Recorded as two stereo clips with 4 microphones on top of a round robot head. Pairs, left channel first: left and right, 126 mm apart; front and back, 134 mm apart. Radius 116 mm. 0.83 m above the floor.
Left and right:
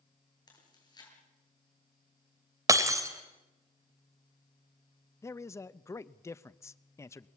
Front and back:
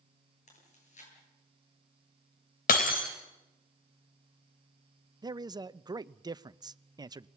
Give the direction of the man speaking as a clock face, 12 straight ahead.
7 o'clock.